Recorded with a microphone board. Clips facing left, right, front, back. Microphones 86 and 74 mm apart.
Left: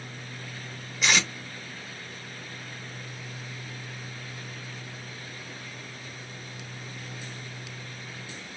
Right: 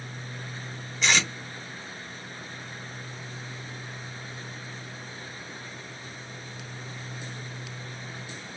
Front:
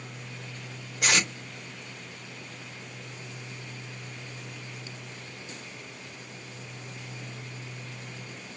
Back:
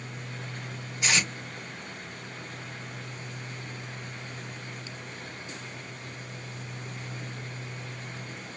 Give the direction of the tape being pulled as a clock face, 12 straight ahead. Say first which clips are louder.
Even, front 1 dB; 12 o'clock.